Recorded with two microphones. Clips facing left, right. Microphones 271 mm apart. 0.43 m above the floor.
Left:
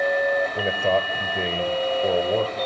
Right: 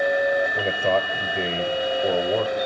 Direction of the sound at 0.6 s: Centre (ahead or behind).